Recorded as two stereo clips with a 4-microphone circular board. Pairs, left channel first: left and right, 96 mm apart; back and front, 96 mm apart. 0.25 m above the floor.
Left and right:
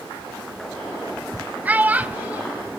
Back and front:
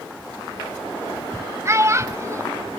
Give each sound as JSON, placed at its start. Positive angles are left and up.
{"t": 1.6, "sound": "a child speaking", "azimuth_deg": -30, "distance_m": 0.6}